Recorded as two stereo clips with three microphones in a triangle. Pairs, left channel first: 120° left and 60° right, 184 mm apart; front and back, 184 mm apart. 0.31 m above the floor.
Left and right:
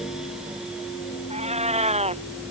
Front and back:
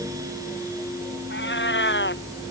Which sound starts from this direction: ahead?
A cat meowing, at 1.3 s.